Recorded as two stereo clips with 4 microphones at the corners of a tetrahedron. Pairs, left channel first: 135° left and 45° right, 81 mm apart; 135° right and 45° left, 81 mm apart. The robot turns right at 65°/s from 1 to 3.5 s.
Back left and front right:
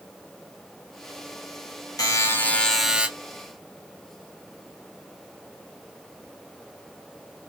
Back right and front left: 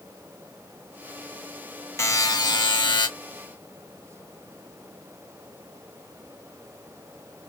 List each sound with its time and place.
2.0 s a buzzer: 175° left, 1.0 m; by 3.1 s 115° right, 1.0 m